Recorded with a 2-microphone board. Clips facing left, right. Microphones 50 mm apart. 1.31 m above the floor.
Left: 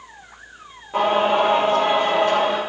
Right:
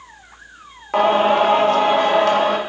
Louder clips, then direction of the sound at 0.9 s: Right 3 dB; 80° right.